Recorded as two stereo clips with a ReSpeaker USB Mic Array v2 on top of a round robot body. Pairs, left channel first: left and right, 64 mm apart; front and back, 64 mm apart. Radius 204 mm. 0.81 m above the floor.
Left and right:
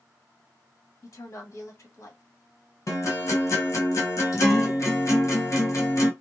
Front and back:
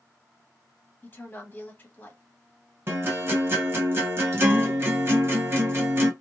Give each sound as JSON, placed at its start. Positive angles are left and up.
{"t": 1.0, "sound": "a woman speaking", "azimuth_deg": 55, "distance_m": 1.4}
{"t": 2.9, "sound": "a guitar", "azimuth_deg": 130, "distance_m": 1.0}